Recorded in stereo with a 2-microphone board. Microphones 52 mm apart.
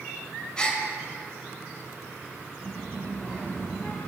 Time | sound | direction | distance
0.6 | a gasp | 15° left (ahead or behind) | 0.7 m
2.6 | a child speaking | 30° left (ahead or behind) | 1.2 m